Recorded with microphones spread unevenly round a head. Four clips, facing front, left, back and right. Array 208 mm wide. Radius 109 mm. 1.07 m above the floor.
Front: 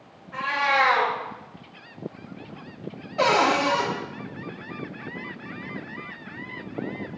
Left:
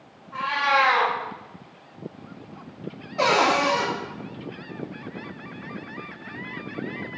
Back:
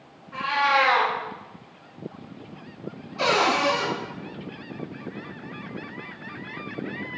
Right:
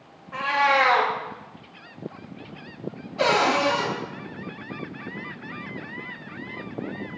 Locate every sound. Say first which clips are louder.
0.3 s a cat meowing: right 1 dB, back 1 dB; 75° right, 0.6 m
3.2 s a cupboard door: left 1 dB, front 2 dB; 20° left, 1.3 m